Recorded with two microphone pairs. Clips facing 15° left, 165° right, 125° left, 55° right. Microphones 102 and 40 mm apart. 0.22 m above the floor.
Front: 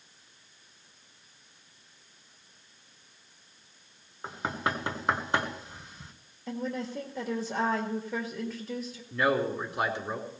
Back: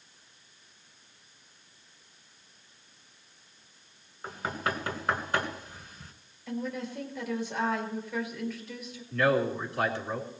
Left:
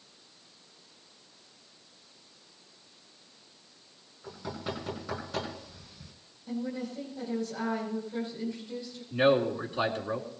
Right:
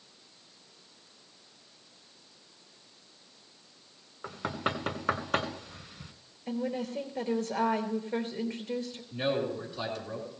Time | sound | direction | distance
4.2 | knocking | 55° right | 1.8 m
6.5 | a woman speaking | 40° right | 3.5 m
9.1 | a man speaking | 85° left | 3.5 m